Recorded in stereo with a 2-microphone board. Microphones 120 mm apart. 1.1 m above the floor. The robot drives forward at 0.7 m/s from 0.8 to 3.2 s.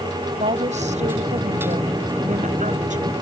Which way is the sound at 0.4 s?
70° right (ahead or behind).